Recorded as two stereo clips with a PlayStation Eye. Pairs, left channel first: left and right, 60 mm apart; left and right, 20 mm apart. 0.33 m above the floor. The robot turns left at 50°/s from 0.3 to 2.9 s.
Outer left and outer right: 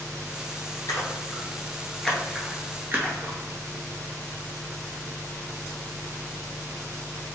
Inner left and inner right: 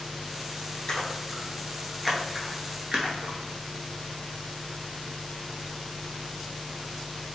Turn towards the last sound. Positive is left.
turn(degrees=-35)  # may be behind; listen again after turning